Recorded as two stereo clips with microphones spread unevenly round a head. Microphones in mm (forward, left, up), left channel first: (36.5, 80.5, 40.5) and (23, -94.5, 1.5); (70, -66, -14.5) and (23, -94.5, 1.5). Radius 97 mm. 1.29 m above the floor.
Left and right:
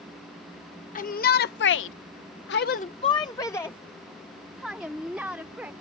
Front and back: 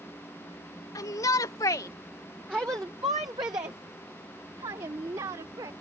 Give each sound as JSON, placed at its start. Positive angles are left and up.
{"t": 0.9, "sound": "a shout", "azimuth_deg": 40}